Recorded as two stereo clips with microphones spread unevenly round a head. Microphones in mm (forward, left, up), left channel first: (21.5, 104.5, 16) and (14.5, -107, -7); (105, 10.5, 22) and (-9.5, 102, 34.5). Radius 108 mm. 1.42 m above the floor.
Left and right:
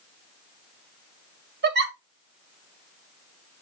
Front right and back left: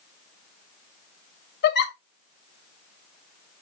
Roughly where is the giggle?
Ahead right.